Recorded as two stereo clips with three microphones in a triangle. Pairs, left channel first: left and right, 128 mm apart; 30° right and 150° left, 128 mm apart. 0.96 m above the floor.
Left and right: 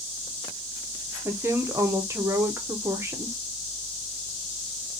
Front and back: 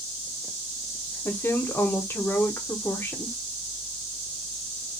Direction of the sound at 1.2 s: 65° right.